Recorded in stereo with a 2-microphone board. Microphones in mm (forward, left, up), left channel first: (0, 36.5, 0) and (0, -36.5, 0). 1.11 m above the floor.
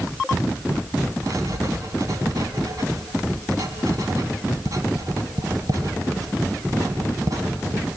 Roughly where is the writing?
Right.